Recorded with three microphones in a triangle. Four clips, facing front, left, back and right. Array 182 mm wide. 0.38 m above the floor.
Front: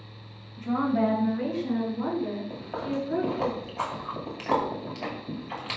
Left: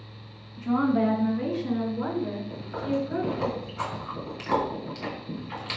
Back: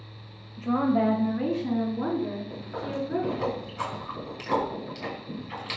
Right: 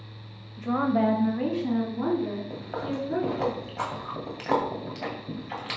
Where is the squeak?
No squeak in this recording.